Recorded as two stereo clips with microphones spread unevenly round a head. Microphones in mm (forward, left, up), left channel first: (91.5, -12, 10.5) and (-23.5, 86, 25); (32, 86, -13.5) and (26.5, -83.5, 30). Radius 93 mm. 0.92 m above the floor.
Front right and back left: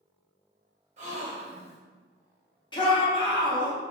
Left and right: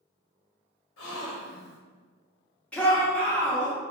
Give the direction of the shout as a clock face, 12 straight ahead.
12 o'clock.